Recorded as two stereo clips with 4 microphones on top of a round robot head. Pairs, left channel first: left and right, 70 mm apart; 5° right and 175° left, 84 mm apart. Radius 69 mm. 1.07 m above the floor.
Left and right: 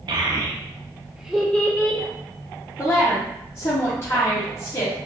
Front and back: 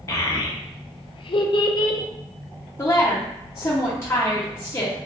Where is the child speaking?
60° right, 0.8 m; by 2.0 s 35° left, 0.6 m.